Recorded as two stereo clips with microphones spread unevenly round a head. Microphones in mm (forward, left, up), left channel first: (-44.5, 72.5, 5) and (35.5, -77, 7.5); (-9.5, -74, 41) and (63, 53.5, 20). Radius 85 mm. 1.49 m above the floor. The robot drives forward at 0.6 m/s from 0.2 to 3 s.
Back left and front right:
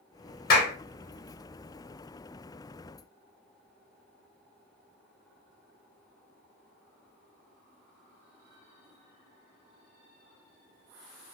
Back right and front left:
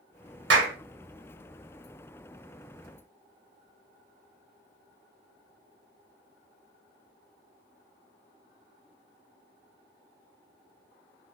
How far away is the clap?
About 1.0 m.